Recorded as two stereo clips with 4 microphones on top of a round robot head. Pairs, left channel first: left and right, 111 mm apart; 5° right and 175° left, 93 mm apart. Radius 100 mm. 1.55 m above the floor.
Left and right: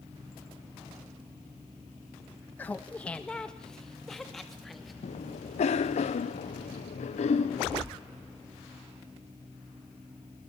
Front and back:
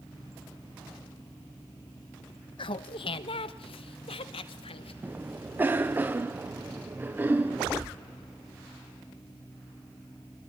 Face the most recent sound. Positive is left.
turn(degrees=105)